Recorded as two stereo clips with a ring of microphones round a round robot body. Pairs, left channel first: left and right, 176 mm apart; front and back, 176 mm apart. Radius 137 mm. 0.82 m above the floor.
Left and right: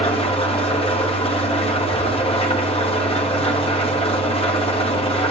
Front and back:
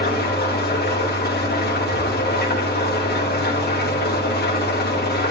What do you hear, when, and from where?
0.0 s an engine running: 30° left, 1.4 m